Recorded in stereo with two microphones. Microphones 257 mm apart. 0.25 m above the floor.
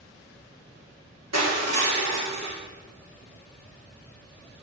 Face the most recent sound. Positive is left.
turn(degrees=-80)